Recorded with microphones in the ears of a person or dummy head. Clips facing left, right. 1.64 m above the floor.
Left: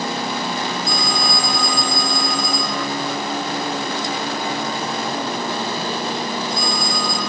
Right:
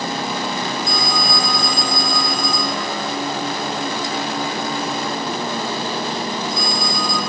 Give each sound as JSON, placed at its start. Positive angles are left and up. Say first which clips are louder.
{"t": 0.9, "sound": "a phone ringing", "louder": "even", "side_deg": 0, "distance_m": 7.5}